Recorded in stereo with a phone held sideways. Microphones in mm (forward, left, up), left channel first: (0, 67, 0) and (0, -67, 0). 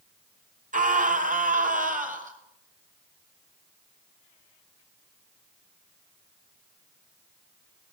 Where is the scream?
75° right (ahead or behind), 4 m; by 2.4 s 80° right, 5.5 m.